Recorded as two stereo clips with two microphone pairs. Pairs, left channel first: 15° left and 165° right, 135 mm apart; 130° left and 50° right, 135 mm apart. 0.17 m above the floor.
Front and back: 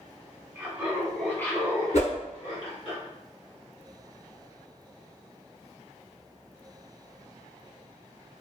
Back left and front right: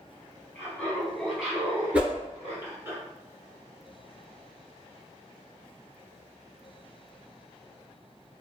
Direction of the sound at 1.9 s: 30° left.